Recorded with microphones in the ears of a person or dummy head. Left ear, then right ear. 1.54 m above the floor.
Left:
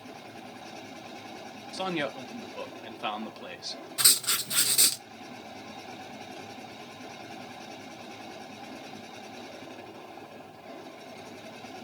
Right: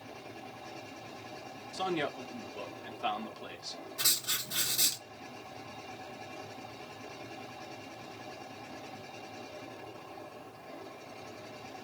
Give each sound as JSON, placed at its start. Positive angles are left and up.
{"t": 0.0, "sound": "a machine running", "side_deg": 55, "distance_m": 3.0}
{"t": 1.7, "sound": "a man speaking", "side_deg": 25, "distance_m": 0.8}
{"t": 4.0, "sound": "writing", "side_deg": 50, "distance_m": 1.1}